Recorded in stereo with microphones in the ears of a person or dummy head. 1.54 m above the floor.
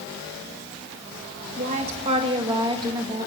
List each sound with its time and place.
1.6 s a woman speaking: 40° right (ahead or behind), 1.8 m; by 3.3 s 20° right (ahead or behind), 2.5 m